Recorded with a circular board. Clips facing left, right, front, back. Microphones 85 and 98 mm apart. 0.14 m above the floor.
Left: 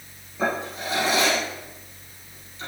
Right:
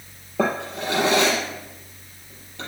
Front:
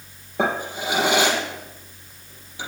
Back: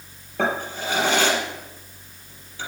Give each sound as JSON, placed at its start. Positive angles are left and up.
{"t": 0.4, "sound": "a drawer", "azimuth_deg": -70, "distance_m": 3.0}